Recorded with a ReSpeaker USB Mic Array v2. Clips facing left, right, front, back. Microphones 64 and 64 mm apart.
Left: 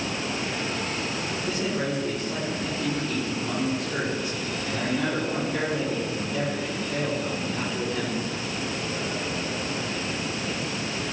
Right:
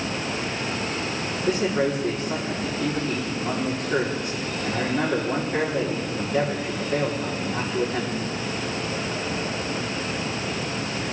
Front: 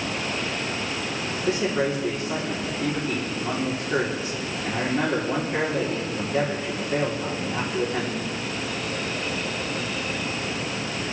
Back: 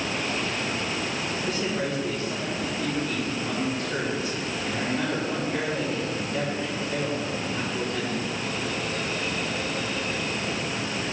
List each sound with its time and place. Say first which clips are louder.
1.5 s a man speaking: right 7 dB, front 6 dB; 50° right, 3.5 m